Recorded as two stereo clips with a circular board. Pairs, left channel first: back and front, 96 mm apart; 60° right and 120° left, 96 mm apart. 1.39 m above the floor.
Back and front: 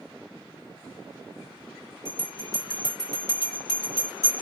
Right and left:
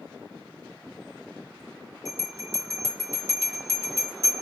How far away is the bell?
About 1.6 m.